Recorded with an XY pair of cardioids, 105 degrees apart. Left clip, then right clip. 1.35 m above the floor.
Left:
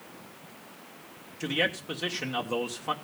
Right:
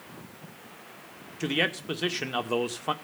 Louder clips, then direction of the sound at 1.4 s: Right 1 dB; 25° right.